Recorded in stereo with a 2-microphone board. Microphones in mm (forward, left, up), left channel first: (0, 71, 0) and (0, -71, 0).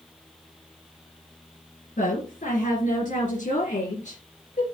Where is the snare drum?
No snare drum in this recording.